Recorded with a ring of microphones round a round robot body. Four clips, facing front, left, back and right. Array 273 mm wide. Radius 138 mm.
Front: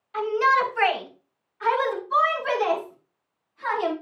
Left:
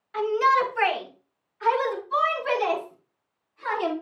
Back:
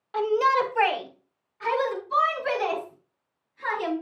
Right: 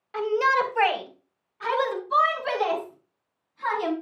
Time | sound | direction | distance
0.1 | a shout | 150° right | 2.5 m